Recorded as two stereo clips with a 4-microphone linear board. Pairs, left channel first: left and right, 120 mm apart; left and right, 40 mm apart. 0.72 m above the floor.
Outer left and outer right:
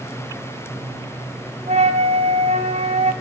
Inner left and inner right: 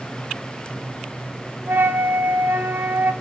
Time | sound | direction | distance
1.7 | a flute | 70° right (ahead or behind) | 1.8 m